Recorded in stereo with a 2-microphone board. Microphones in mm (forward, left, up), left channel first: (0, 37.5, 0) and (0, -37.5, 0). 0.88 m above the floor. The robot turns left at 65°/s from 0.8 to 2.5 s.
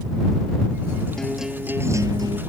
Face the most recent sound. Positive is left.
turn(degrees=-80)